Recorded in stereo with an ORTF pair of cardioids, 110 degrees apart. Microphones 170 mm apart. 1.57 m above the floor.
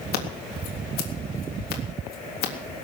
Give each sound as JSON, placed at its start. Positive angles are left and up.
{"t": 0.1, "sound": "scissors", "azimuth_deg": 65, "distance_m": 3.5}